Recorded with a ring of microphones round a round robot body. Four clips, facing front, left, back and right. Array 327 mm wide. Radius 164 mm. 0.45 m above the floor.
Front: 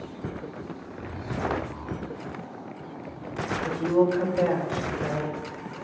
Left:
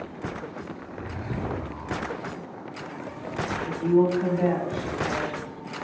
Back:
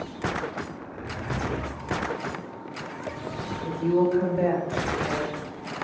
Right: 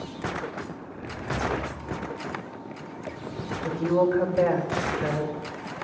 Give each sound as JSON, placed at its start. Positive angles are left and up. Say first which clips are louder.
{"t": 0.7, "sound": "a zipper", "louder": "left 1 dB, back 1 dB", "azimuth_deg": 60, "distance_m": 4.5}
{"t": 3.6, "sound": "a woman speaking", "louder": "left 1 dB, even", "azimuth_deg": -60, "distance_m": 3.5}